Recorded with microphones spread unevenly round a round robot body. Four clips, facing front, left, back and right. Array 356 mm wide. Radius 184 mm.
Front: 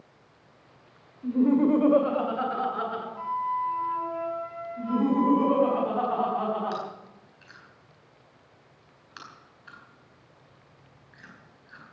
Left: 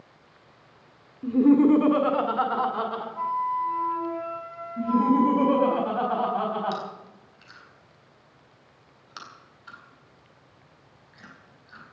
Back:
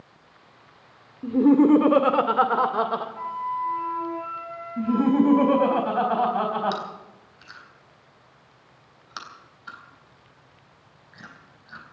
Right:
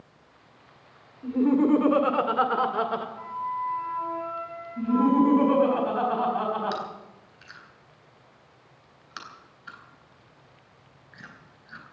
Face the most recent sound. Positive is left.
turn(degrees=-150)